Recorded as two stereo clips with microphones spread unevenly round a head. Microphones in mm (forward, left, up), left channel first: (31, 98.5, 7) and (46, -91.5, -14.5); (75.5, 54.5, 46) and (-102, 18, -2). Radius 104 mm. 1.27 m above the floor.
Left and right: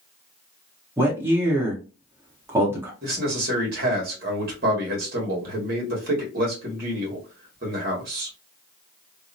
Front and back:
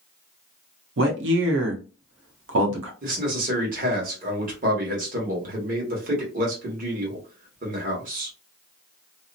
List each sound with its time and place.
1.0 s a man speaking: 165° right, 0.9 m
3.0 s a man speaking: 130° right, 1.4 m